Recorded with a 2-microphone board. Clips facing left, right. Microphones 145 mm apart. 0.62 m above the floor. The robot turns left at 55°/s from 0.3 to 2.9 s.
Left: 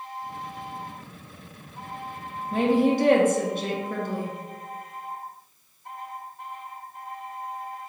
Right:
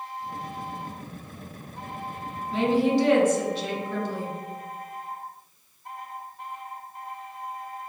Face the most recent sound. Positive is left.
turn(degrees=55)  # may be behind; listen again after turning